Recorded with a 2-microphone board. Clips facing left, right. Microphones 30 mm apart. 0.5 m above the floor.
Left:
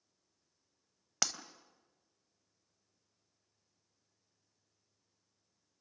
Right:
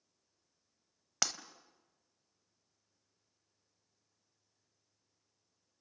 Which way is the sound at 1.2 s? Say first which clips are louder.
Even; 5° right (ahead or behind).